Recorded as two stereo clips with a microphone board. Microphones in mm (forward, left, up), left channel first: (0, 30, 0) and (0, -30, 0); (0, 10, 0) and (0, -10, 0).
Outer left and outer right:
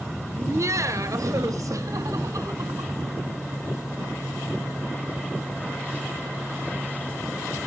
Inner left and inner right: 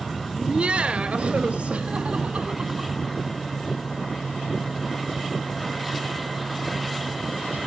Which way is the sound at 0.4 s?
50° right (ahead or behind).